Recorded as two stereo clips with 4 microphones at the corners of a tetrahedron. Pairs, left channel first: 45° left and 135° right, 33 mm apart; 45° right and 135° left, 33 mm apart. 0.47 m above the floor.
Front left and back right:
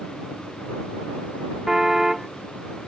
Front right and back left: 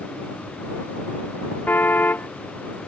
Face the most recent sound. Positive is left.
turn(degrees=-55)